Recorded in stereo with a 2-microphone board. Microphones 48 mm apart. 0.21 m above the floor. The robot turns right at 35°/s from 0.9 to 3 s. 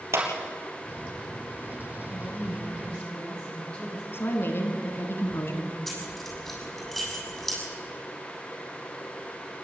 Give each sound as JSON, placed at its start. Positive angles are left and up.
{"t": 0.1, "sound": "a clap", "side_deg": -70, "distance_m": 3.5}
{"t": 2.1, "sound": "a woman speaking", "azimuth_deg": 125, "distance_m": 6.5}
{"t": 4.1, "sound": "a woman speaking", "side_deg": 55, "distance_m": 2.5}
{"t": 5.9, "sound": "keys jangling", "side_deg": 0, "distance_m": 6.5}